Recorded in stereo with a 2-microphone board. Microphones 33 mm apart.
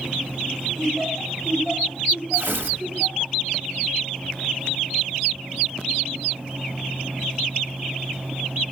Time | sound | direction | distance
0.8 | laughter | centre (ahead or behind) | 2.5 m
2.3 | tearing paper | 80° right | 1.0 m